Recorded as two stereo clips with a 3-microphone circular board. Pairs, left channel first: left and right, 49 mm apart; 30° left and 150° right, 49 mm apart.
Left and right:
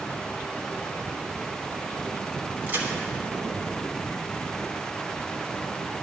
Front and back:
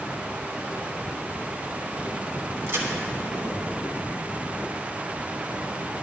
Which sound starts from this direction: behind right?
A crack, at 2.7 s.